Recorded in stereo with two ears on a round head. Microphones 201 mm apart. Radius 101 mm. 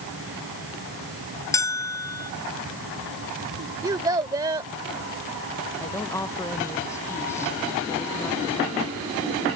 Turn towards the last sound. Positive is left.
turn(degrees=15)  # may be behind; listen again after turning